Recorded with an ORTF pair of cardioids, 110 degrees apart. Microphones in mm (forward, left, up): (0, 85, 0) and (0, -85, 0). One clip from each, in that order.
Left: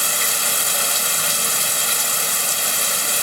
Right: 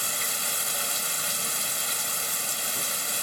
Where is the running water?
50° left.